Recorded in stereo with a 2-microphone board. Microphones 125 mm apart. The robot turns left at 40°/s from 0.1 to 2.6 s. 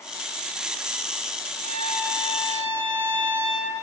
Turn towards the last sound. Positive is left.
turn(degrees=-135)